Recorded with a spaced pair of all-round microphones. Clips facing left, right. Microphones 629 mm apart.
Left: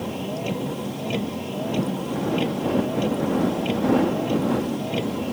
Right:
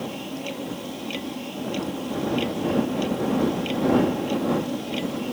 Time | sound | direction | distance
0.0 | a vehicle | 75° left (ahead or behind) | ?